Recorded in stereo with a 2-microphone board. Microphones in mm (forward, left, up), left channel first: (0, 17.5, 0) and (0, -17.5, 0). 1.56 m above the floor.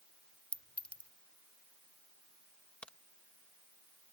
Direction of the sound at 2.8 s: 35° left (ahead or behind).